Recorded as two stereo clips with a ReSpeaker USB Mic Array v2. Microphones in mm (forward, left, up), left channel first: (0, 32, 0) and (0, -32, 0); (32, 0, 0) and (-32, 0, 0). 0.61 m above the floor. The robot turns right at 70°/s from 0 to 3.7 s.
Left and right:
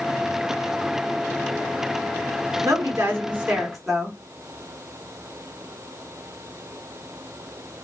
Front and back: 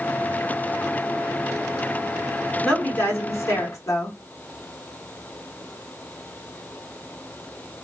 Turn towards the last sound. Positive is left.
turn(degrees=0)